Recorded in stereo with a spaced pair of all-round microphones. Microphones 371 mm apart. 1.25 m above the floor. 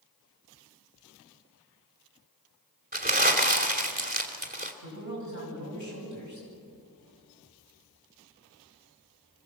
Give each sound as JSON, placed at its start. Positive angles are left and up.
{"t": 2.9, "sound": "crumpling", "side_deg": -25, "distance_m": 3.0}
{"t": 4.8, "sound": "a man speaking", "side_deg": -50, "distance_m": 9.5}